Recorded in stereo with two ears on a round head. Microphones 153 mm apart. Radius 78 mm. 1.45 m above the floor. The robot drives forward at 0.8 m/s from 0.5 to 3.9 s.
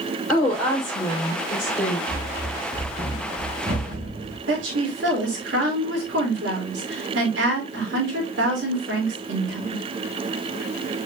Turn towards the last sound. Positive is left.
turn(degrees=-80)